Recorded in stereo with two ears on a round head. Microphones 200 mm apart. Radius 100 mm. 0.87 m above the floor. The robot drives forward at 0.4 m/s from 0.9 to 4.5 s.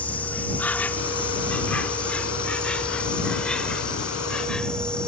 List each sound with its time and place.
0.0 s an insect: 10° left (ahead or behind); by 5.1 s 5° left (ahead or behind)